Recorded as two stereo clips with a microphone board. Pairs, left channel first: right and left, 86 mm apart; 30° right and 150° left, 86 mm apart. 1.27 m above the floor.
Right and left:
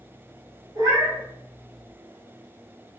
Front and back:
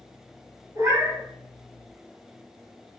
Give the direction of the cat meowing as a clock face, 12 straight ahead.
8 o'clock.